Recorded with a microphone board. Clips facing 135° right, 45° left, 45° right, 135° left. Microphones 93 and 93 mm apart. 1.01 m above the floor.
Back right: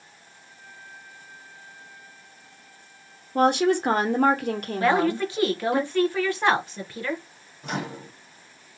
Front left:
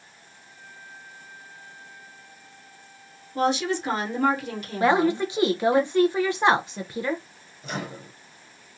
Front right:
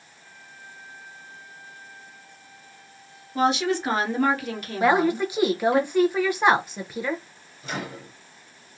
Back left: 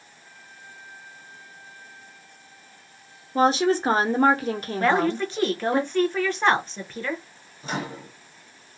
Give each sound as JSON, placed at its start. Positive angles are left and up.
{"t": 3.4, "sound": "a woman speaking", "azimuth_deg": -170, "distance_m": 0.9}
{"t": 4.8, "sound": "a woman speaking", "azimuth_deg": 20, "distance_m": 0.5}
{"t": 7.6, "sound": "a microwave", "azimuth_deg": -170, "distance_m": 1.2}